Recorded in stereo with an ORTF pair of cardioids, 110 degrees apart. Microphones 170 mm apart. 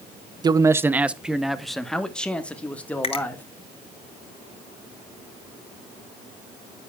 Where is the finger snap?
30° left, 1.4 m.